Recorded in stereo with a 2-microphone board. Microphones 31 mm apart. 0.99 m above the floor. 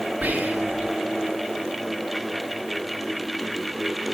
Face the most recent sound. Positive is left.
turn(degrees=-75)  # may be behind; listen again after turning